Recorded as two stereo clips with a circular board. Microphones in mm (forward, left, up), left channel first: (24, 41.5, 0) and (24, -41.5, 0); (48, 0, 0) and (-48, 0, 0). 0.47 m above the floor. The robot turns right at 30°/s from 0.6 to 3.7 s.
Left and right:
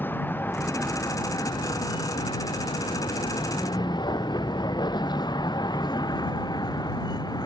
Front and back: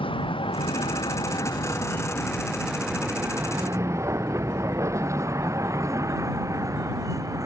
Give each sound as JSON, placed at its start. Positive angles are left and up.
{"t": 0.0, "sound": "a vehicle", "azimuth_deg": 25}